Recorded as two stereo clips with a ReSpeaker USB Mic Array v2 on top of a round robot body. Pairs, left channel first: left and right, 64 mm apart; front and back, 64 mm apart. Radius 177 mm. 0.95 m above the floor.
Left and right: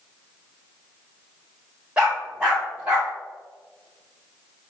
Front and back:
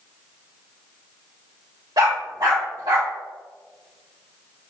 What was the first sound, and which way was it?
A dog barking, 165° right.